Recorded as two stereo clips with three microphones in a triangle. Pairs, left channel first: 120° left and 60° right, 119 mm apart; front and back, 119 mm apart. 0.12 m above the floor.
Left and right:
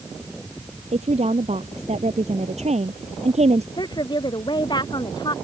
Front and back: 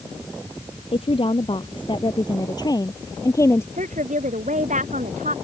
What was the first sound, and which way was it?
A woman speaking, 40° right.